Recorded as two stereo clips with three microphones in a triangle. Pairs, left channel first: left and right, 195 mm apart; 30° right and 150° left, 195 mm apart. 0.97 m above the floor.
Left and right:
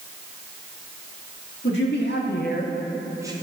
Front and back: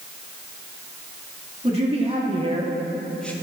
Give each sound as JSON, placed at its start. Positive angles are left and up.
{"t": 1.6, "sound": "a man speaking", "azimuth_deg": 95, "distance_m": 2.0}